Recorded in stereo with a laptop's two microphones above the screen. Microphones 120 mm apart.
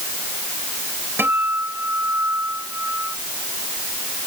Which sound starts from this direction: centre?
A guitar, at 1.2 s.